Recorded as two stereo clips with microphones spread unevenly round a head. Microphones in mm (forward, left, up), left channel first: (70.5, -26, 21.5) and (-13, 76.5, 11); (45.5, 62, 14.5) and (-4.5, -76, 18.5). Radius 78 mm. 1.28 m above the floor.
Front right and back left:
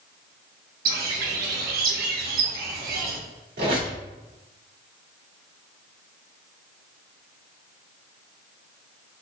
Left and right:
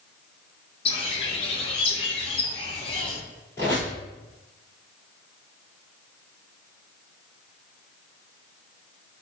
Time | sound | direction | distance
0.8 | a bird | 130° left | 0.8 m
3.6 | a squeak | 145° left | 1.7 m